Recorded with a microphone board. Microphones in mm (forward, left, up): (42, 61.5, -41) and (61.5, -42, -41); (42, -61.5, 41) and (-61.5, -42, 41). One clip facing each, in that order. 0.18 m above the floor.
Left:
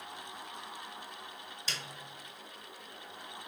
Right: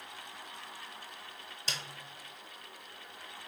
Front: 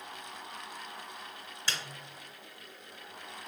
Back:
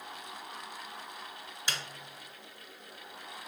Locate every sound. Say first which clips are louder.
1.7 s a snare drum: right 1 dB, even; 115° right, 0.6 m